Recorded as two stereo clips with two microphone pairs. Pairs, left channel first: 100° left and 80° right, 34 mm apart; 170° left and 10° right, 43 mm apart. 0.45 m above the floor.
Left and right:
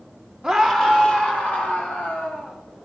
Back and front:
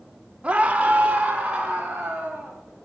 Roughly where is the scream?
Ahead.